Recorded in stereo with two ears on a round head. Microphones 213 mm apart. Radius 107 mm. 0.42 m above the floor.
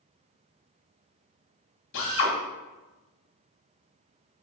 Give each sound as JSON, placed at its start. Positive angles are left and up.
{"t": 1.9, "sound": "a drill", "side_deg": 55, "distance_m": 2.0}